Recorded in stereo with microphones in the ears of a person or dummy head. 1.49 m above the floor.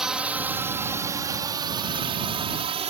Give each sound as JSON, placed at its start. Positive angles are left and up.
{"t": 0.0, "sound": "a drone", "side_deg": 0}